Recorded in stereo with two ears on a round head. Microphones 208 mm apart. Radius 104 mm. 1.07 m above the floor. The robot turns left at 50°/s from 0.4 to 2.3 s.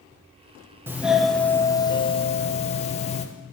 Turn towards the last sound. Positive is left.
turn(degrees=125)